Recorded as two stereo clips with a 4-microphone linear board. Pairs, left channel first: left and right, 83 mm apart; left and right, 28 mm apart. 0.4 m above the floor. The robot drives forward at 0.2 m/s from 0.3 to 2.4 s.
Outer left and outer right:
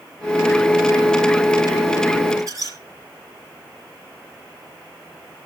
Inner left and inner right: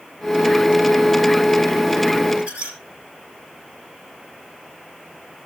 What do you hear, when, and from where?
2.4 s a squeak: 45° right (ahead or behind), 5.5 m